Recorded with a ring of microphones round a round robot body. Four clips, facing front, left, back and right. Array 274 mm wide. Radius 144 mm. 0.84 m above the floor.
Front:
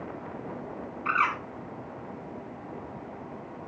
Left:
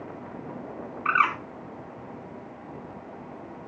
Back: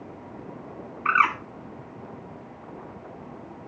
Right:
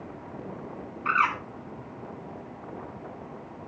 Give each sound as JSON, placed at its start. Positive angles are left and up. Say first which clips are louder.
{"t": 1.1, "sound": "a bird", "louder": "left 1 dB, back 5 dB", "azimuth_deg": 155, "distance_m": 2.0}